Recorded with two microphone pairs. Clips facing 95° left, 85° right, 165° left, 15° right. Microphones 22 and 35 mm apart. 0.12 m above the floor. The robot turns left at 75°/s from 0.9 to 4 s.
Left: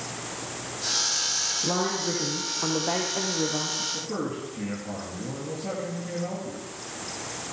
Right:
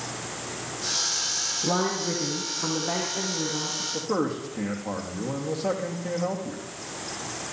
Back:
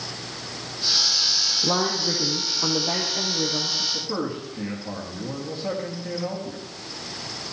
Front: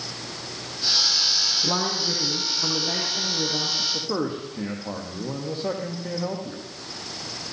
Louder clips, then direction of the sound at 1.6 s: Right 1 dB, back 2 dB; 165° right.